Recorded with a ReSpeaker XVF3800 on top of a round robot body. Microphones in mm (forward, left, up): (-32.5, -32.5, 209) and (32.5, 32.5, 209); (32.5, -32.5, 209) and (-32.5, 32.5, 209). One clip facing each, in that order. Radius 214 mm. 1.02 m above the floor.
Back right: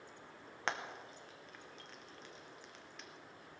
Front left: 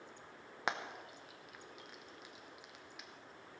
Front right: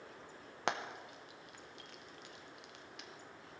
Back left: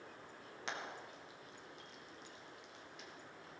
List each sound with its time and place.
0.7 s frying: 35° right, 1.2 m